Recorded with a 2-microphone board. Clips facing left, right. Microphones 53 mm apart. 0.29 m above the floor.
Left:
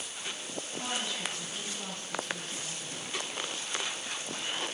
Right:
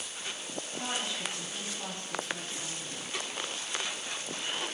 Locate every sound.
0.8 s a woman speaking: 25° right (ahead or behind), 1.5 m